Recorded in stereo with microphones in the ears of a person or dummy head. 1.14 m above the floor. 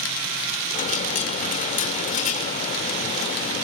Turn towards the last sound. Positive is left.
turn(degrees=40)  # may be behind; listen again after turning